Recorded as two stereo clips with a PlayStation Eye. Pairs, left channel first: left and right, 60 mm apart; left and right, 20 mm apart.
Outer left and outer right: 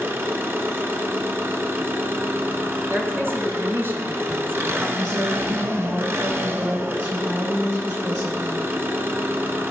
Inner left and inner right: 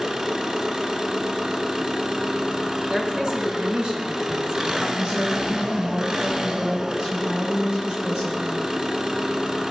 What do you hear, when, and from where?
0.0 s an engine running: 40° right (ahead or behind), 1.0 m
2.9 s a woman speaking: 40° right (ahead or behind), 1.8 m
5.0 s a woman speaking: 60° right (ahead or behind), 4.5 m